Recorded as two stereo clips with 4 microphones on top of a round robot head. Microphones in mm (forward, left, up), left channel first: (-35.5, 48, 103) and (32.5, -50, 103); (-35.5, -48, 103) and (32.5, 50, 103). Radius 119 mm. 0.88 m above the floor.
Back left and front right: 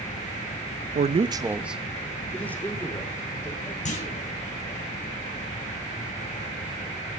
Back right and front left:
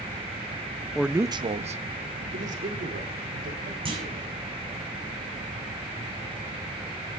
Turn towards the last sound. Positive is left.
turn(degrees=100)